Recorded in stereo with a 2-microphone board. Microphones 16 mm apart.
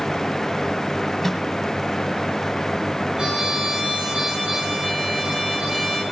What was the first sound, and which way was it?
A microwave, 15° left (ahead or behind).